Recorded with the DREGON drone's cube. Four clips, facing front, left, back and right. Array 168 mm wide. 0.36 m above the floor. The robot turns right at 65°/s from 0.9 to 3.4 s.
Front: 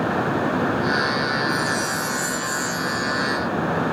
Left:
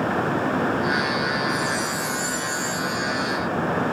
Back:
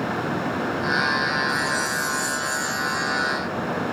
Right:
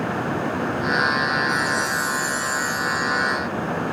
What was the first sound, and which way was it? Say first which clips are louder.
A chime: right 2 dB, front 1 dB; 60° right.